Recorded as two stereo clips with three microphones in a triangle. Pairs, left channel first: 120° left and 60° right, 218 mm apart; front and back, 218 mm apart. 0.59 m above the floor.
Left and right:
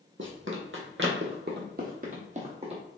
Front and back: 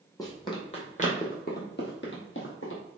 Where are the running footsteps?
70° right, 1.3 m; by 2.8 s straight ahead, 1.4 m.